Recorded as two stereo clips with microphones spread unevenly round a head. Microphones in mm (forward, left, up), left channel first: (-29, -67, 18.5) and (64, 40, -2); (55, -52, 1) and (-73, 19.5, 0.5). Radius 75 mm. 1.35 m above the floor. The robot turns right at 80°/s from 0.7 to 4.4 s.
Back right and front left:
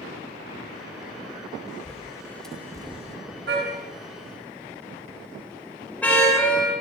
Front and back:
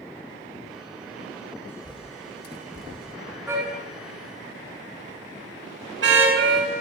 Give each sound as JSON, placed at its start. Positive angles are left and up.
{"t": 1.7, "sound": "a bird", "azimuth_deg": -105, "distance_m": 4.0}
{"t": 3.5, "sound": "a car horn", "azimuth_deg": 75, "distance_m": 8.5}